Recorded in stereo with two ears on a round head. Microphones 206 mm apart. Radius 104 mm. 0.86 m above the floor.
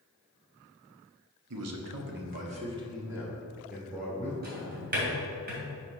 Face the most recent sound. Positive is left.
turn(degrees=-40)  # may be behind; listen again after turning